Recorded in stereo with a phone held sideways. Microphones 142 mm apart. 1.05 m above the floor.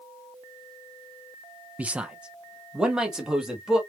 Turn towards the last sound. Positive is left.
turn(degrees=-5)  # may be behind; listen again after turning